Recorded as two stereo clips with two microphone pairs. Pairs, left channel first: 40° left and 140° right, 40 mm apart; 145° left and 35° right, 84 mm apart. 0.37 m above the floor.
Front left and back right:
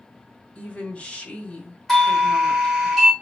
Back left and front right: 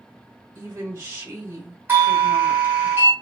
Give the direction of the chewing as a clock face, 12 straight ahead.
I don't hear chewing.